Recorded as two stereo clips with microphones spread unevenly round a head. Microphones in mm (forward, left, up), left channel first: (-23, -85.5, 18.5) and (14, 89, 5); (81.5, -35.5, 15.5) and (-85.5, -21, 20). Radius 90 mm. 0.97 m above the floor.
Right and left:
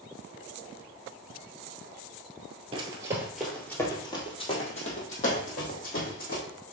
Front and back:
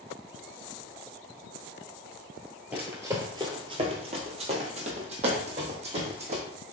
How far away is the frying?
No frying in this recording.